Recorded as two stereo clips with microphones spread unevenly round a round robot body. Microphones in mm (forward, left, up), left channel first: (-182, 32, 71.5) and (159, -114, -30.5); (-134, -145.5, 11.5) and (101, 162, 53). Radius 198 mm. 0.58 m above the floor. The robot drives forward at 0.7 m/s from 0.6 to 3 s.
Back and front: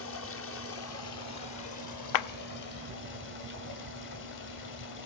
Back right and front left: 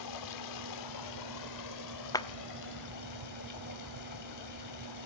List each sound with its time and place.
0.0 s running water: 145° right, 1.3 m; by 5.1 s 165° right, 3 m
2.1 s a clap: 165° left, 0.5 m